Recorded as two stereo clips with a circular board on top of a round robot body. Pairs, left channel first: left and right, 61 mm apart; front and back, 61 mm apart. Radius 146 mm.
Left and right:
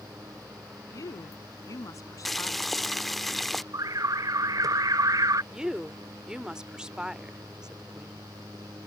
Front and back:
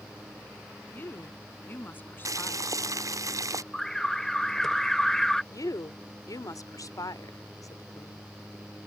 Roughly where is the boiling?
Behind.